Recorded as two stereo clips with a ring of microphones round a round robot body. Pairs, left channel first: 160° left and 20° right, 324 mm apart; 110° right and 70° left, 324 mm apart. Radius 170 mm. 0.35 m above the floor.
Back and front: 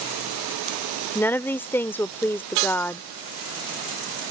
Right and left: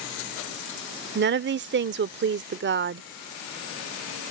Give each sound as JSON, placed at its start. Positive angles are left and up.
{"t": 1.1, "sound": "a woman speaking", "azimuth_deg": 80}